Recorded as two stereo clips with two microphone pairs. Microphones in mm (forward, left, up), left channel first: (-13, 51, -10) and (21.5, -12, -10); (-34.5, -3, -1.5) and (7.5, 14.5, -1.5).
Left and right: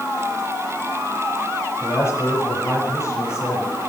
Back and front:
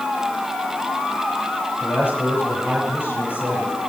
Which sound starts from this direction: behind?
A man speaking, at 1.8 s.